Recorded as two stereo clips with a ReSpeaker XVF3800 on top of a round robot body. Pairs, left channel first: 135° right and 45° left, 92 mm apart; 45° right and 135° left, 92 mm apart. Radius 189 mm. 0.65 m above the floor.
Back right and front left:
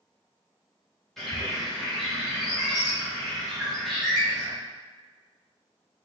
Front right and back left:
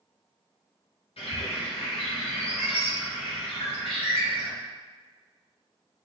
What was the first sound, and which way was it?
A bird, 45° right.